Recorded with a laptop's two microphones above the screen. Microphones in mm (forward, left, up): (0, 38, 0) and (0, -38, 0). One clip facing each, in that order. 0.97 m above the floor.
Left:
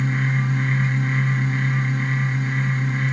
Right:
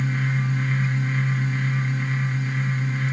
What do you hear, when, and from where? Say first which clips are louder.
0.0 s a fan: left 2 dB; 55° left (ahead or behind), 1.2 m